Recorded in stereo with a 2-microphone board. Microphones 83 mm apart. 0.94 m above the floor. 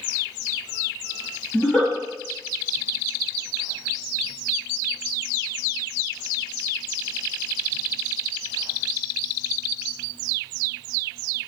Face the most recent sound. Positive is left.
turn(degrees=20)  # may be behind; listen again after turning